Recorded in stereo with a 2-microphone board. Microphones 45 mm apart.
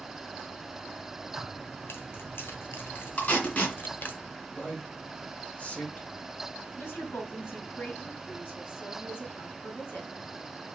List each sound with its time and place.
1.3 s keys jangling: 70° left (ahead or behind), 2 m; by 4.2 s 50° left (ahead or behind), 1.1 m
3.2 s tape being pulled: 35° left (ahead or behind), 2.5 m
4.5 s a man speaking: 30° left (ahead or behind), 2.5 m
6.8 s a woman speaking: 60° left (ahead or behind), 4 m